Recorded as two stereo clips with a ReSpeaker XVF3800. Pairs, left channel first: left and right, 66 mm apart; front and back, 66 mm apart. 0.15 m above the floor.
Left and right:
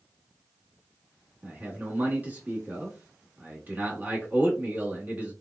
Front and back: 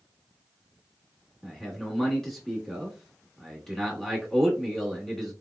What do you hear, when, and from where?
1.4 s a man speaking: 75° right, 1.6 m